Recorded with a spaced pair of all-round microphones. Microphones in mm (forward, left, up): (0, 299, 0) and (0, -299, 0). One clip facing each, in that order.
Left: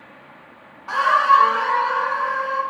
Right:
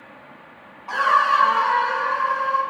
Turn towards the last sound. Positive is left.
turn(degrees=-60)  # may be behind; listen again after turning